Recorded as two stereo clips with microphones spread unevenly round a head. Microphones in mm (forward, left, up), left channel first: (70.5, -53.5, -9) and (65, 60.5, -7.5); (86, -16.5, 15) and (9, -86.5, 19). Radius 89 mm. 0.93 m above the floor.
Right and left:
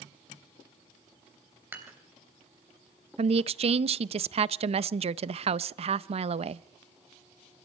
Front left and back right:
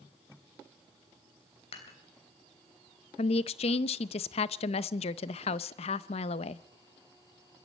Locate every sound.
1.7 s dishes clattering: 20° left, 3.5 m
3.2 s a woman speaking: 65° left, 0.5 m